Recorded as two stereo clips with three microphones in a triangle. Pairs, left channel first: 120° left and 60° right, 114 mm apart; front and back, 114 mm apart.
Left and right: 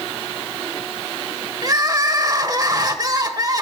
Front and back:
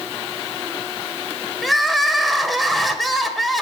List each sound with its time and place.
1.6 s crying: 90° right, 1.1 m